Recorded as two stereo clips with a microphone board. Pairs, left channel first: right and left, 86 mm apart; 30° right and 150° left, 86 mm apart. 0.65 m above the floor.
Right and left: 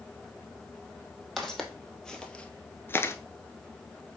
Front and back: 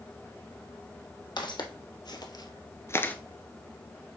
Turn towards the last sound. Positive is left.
turn(degrees=-85)